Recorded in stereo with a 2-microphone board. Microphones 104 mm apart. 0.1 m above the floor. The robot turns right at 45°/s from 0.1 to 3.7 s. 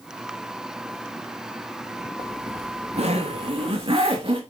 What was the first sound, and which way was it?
A zipper, 120° right.